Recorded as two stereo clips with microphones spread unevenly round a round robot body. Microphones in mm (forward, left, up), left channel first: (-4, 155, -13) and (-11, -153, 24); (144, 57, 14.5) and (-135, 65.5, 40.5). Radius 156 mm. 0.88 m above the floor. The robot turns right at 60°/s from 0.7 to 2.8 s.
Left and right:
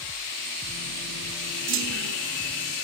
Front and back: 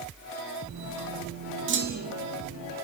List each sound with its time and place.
1.7 s a clunk: 140° right, 1.4 m; by 2.2 s 110° right, 1.4 m